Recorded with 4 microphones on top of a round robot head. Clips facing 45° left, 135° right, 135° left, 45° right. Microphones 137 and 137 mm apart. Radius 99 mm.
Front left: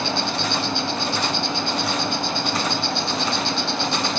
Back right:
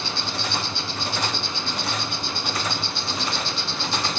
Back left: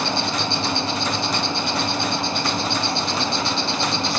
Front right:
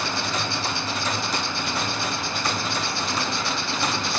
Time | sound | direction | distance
0.0 | an insect | 80° left | 0.7 m